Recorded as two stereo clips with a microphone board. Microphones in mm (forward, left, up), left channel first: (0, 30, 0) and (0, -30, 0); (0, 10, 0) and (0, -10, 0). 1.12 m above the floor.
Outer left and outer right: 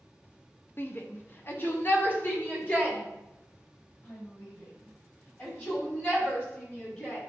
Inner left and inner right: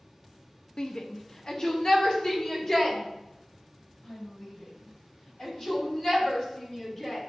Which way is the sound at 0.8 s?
40° left (ahead or behind).